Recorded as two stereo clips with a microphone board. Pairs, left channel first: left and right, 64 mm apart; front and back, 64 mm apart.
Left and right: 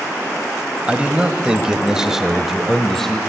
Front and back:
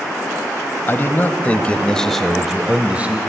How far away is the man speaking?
About 1.2 m.